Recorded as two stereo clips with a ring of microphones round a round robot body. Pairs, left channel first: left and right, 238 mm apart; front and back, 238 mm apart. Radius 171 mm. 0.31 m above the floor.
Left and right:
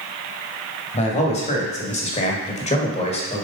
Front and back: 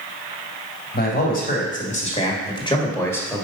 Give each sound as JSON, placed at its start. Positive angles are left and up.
{"t": 0.9, "sound": "a man speaking", "azimuth_deg": 35, "distance_m": 2.0}